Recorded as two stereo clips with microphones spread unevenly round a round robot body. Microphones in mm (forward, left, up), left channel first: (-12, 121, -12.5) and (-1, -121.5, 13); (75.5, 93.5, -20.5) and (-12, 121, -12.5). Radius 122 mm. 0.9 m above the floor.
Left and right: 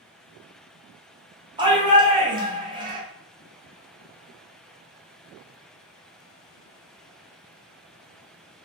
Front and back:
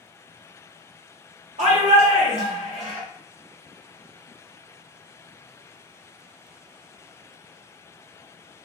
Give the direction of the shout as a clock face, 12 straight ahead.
5 o'clock.